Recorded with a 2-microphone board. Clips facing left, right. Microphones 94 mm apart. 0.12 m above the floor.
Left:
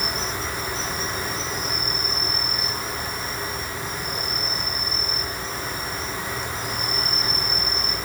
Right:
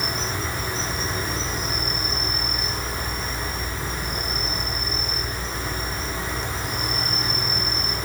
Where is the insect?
5° left (ahead or behind), 6.5 m.